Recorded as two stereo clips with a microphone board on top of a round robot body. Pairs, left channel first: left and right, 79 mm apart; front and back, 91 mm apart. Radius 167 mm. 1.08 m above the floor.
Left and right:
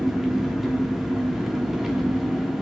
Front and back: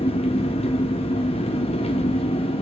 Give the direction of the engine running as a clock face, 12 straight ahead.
12 o'clock.